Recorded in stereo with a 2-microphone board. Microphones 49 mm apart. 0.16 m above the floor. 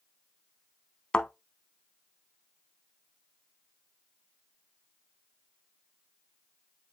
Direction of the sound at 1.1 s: 15° left (ahead or behind).